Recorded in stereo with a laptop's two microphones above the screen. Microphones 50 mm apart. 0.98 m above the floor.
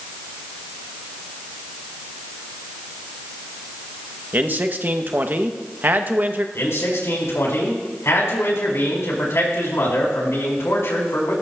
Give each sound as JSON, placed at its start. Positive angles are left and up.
{"t": 4.3, "sound": "a man speaking", "side_deg": -40, "distance_m": 0.8}
{"t": 6.5, "sound": "a man speaking", "side_deg": 65, "distance_m": 4.5}